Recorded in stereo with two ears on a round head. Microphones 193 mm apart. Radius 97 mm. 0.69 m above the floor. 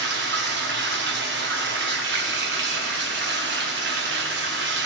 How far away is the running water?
About 1.0 m.